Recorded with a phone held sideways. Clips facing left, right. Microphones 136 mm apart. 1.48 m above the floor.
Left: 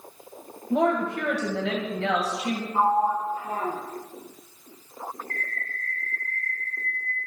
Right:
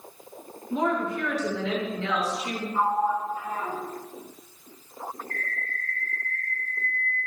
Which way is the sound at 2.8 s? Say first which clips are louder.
Left 2 dB; 35° left (ahead or behind).